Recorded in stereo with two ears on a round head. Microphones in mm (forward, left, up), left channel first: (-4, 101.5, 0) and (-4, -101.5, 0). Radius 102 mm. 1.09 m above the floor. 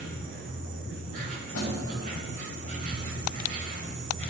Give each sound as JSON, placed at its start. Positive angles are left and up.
{"t": 0.0, "sound": "an insect", "side_deg": -35, "distance_m": 1.5}
{"t": 1.5, "sound": "a snare drum", "side_deg": 75, "distance_m": 3.0}